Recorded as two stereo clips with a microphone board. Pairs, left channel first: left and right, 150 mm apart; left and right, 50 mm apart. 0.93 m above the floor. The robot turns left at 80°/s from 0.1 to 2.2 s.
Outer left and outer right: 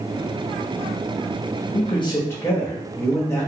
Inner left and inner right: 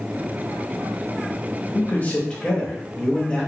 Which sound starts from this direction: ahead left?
A man speaking, at 1.7 s.